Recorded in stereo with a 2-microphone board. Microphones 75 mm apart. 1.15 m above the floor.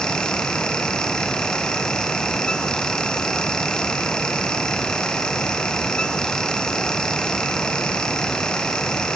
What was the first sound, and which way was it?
Only background noise.